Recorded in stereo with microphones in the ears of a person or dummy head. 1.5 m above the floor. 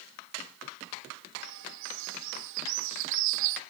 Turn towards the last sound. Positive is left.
turn(degrees=-70)  # may be behind; listen again after turning